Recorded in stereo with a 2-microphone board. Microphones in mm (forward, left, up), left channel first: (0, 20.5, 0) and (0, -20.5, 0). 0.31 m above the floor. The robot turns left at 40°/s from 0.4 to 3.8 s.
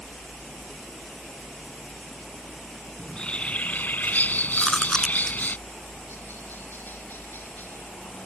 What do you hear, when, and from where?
0.0 s a helicopter: 145° right; by 8.3 s 80° left
3.0 s a bird: 155° left; by 5.6 s 125° left
4.6 s chewing: 10° left (ahead or behind)